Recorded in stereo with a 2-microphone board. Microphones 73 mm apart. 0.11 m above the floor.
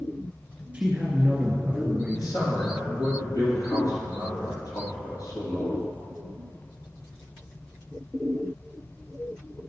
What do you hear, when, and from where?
0.7 s a man speaking: 15° right (ahead or behind), 1.8 m
2.1 s a man speaking: 55° left (ahead or behind), 2.5 m